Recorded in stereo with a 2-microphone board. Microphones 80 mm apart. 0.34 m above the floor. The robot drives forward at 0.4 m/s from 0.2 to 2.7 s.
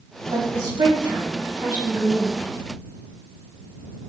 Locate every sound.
0.3 s a woman speaking: 55° right (ahead or behind), 2.5 m; by 2.4 s 60° right (ahead or behind), 2.5 m